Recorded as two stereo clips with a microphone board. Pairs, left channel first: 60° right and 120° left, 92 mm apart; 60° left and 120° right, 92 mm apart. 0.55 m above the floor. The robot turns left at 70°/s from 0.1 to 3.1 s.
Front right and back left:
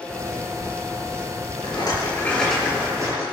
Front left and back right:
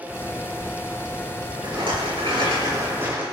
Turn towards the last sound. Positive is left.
turn(degrees=170)